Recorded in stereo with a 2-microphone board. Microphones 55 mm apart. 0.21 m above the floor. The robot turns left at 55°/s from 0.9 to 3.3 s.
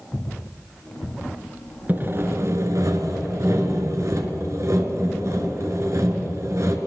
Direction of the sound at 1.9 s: 35° right.